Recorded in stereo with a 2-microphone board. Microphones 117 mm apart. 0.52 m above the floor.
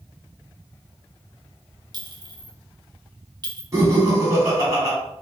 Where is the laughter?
25° right (ahead or behind), 1.3 m.